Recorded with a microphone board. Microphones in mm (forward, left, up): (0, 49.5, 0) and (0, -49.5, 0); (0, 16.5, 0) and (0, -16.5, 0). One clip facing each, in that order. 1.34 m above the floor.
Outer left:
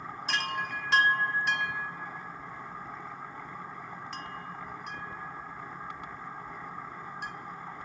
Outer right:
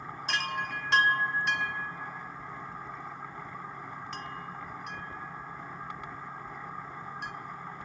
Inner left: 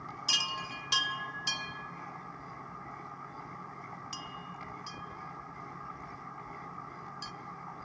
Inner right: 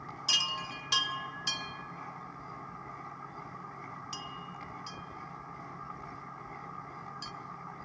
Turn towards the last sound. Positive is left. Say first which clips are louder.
# even, inner right 1 dB
turn(degrees=0)  # may be behind; listen again after turning